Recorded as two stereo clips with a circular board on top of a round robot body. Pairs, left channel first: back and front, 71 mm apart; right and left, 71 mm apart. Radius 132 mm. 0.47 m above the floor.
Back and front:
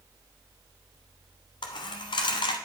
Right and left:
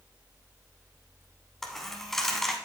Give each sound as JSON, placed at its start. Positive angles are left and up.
{"t": 1.6, "sound": "a dropped coin", "azimuth_deg": -175, "distance_m": 0.7}